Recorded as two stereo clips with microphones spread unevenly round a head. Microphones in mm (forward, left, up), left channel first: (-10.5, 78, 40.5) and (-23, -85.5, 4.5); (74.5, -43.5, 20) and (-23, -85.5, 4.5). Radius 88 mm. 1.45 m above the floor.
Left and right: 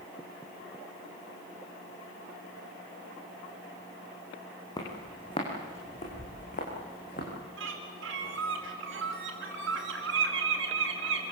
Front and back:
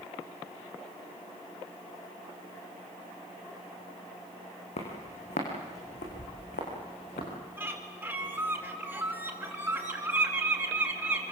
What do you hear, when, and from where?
4.8 s footsteps: 20° left, 5 m; by 7.3 s 45° left, 7 m
7.6 s a bird: 85° right, 4.5 m